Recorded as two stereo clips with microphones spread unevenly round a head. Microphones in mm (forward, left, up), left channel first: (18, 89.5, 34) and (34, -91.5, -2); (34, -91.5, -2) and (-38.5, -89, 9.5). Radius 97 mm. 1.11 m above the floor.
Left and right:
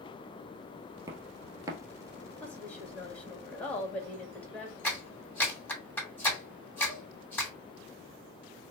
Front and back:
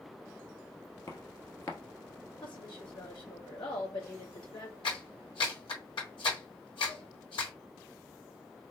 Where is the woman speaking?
10° left, 2 m.